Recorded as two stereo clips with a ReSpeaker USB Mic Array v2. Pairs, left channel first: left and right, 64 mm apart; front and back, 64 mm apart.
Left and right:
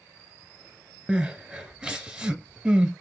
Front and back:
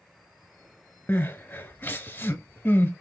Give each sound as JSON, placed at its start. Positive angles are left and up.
{"t": 1.1, "sound": "crying", "azimuth_deg": -20, "distance_m": 0.8}